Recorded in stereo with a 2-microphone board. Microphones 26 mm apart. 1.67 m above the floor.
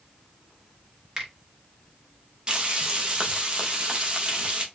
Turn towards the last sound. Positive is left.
turn(degrees=-35)  # may be behind; listen again after turning